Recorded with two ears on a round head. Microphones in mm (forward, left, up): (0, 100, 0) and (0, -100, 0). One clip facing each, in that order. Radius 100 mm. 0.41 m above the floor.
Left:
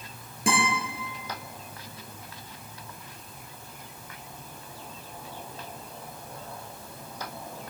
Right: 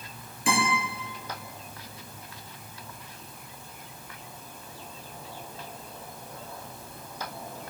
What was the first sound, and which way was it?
A guitar, 40° left (ahead or behind).